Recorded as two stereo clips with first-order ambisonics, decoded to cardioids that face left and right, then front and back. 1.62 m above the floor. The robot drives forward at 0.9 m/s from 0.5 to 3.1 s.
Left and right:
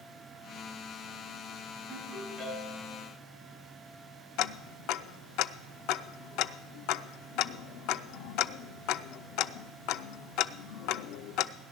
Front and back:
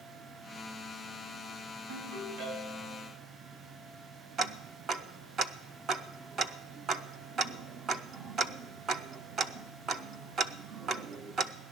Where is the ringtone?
175° right, 5.5 m.